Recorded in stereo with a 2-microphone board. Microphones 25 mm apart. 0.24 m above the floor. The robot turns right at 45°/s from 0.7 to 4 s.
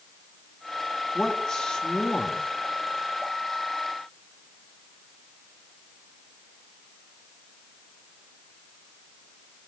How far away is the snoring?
No snoring in this recording.